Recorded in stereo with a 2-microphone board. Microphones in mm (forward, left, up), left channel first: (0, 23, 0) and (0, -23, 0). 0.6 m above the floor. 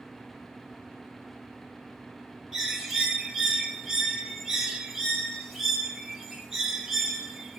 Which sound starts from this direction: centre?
A bird, at 2.5 s.